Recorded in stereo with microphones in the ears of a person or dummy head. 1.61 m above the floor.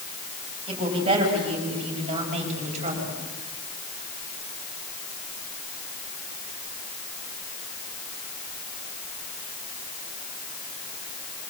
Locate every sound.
0.7 s a woman speaking: 30° right (ahead or behind), 9 m; by 3.2 s 40° right (ahead or behind), 8.5 m